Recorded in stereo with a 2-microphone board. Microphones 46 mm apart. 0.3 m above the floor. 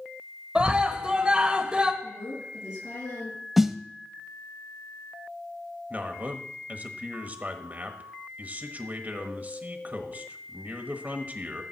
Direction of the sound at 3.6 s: 5° right (ahead or behind).